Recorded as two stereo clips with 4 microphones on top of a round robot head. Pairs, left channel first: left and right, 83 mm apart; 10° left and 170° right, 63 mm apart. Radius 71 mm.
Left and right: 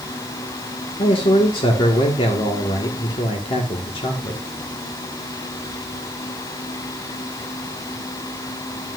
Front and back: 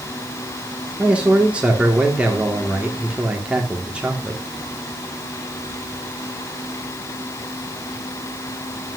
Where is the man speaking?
120° left, 2.0 m.